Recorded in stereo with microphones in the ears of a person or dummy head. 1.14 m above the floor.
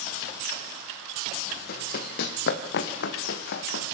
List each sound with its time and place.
1.7 s running footsteps: 55° left (ahead or behind), 3 m; by 3.8 s 70° left (ahead or behind), 3 m